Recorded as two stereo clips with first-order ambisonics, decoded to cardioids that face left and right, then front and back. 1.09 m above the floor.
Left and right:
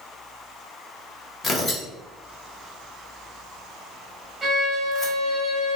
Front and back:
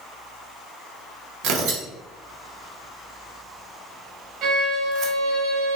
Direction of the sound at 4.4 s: 175° right.